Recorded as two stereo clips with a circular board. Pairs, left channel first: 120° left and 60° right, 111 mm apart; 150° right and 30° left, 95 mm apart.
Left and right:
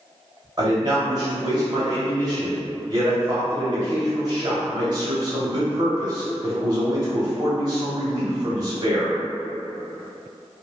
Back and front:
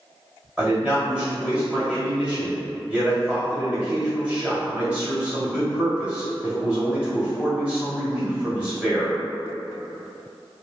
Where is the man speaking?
45° right, 1.5 m.